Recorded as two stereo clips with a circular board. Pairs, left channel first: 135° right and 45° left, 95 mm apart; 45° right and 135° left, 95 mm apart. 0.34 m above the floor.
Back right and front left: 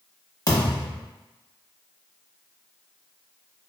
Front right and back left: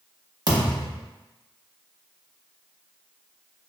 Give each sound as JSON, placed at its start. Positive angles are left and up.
{"t": 0.5, "sound": "a thud", "azimuth_deg": 175, "distance_m": 0.8}